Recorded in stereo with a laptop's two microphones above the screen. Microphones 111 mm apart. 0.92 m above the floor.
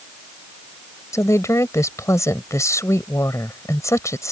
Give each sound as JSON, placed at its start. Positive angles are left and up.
{"t": 1.1, "sound": "a woman speaking", "side_deg": 30}